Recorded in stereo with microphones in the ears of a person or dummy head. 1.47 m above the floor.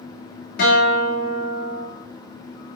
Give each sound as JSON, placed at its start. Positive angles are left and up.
{"t": 0.6, "sound": "a guitar", "side_deg": 60, "distance_m": 2.5}